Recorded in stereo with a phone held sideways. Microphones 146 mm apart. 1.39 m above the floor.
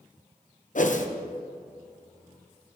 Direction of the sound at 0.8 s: 60° left (ahead or behind).